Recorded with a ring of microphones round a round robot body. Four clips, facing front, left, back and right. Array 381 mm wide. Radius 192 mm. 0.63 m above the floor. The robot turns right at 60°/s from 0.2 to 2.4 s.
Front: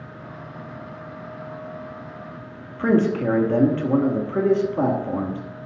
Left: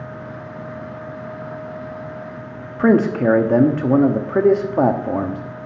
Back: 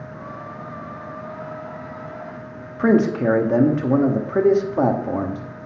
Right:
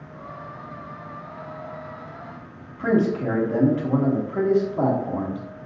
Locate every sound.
2.8 s a man speaking: 105° left, 1.1 m